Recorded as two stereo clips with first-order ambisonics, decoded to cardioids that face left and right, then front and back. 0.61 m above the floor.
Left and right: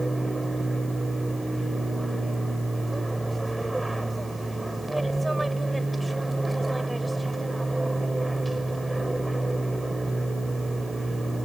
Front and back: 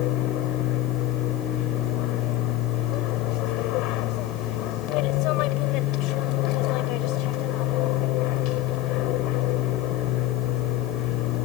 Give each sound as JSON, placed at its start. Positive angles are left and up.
{"t": 0.0, "sound": "an aircraft", "azimuth_deg": -5}